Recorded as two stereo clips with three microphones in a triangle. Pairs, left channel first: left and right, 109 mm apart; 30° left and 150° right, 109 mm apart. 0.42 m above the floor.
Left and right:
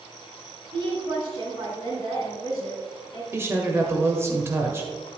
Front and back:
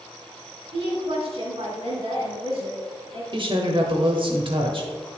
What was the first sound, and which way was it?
A woman speaking, 125° right.